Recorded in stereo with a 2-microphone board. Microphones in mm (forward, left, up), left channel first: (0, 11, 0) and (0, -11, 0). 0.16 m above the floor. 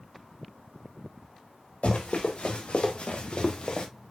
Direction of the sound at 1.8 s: 75° left (ahead or behind).